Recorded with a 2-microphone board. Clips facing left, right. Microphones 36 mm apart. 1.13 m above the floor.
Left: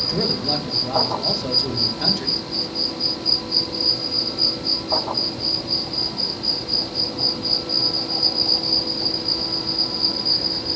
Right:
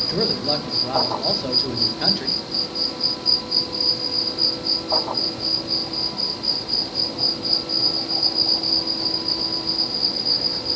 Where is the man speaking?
15° right (ahead or behind), 0.8 m.